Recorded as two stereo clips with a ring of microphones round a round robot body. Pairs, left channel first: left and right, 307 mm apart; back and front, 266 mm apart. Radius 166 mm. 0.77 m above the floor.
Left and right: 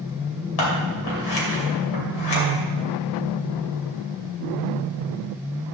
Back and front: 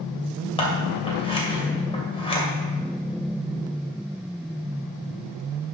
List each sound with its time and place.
0.6 s scissors: 110° left, 2.5 m